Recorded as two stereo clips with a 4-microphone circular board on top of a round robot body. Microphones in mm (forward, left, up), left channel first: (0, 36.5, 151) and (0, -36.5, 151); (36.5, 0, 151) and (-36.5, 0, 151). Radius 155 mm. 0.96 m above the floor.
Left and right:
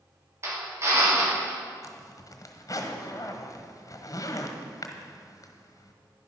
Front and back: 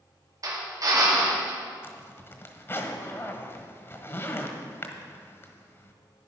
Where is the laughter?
No laughter in this recording.